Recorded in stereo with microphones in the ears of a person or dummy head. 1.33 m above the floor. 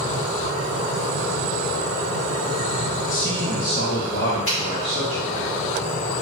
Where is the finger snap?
35° left (ahead or behind), 1.6 m.